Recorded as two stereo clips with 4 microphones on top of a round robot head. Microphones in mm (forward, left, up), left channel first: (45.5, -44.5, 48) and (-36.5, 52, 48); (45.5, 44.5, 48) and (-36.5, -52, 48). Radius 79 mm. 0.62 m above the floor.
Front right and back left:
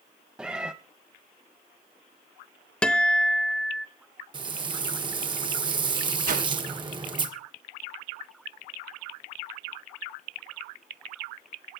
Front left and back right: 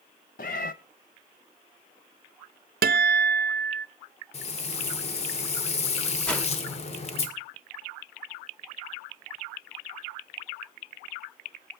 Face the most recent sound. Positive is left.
turn(degrees=130)